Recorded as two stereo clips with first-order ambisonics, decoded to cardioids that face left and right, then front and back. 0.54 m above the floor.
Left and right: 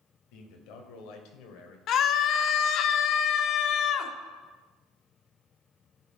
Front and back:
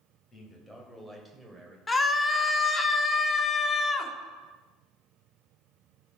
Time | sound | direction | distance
0.3 | a man speaking | 75° left | 2.5 m
1.9 | a scream | 70° left | 0.8 m